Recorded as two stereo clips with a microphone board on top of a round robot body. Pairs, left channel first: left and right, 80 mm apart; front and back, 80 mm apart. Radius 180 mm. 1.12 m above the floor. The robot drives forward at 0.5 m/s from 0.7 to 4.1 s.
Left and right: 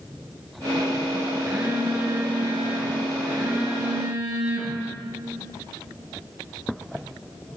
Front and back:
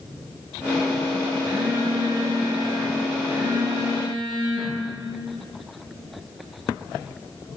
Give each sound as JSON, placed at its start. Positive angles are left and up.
{"t": 1.4, "sound": "a phone buzzing", "azimuth_deg": -150, "distance_m": 3.0}